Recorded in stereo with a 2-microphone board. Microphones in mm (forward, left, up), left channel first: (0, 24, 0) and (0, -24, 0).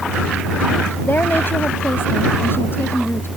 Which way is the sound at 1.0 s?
45° left (ahead or behind).